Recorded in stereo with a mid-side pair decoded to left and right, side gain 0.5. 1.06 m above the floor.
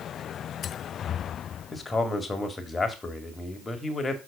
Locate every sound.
1.7 s a man speaking: 25° left, 2 m